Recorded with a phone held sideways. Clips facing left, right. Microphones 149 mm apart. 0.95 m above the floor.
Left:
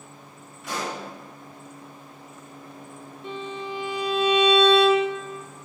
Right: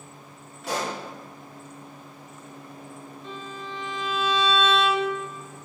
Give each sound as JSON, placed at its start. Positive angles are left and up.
{"t": 0.6, "sound": "a pop", "side_deg": -75, "distance_m": 3.0}
{"t": 3.2, "sound": "a violin", "side_deg": 65, "distance_m": 1.1}